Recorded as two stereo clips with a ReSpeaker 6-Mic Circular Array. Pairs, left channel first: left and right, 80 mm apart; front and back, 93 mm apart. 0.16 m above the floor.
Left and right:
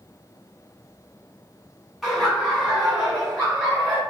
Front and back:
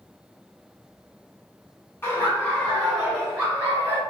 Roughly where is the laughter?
Ahead.